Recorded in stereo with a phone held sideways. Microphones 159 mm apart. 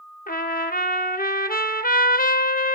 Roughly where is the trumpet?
Left.